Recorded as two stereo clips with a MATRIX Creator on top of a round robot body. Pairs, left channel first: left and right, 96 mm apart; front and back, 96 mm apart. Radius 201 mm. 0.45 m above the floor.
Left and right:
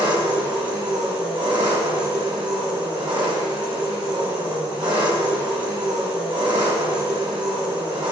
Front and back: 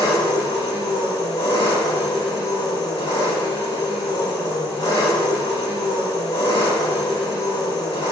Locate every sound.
0.0 s an engine running: 55° right, 5 m